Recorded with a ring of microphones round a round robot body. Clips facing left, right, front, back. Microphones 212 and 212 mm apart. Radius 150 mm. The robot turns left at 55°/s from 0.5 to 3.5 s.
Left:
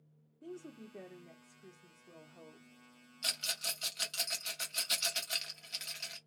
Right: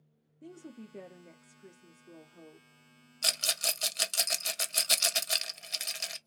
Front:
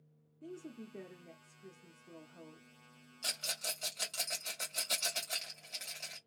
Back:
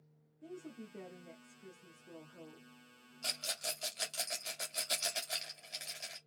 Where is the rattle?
80° right, 0.5 m; by 6.2 s 95° right, 0.5 m.